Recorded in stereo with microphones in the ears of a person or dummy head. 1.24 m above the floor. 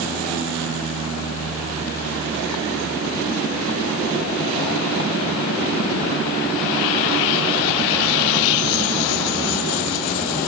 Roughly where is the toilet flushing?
No toilet flushing in this recording.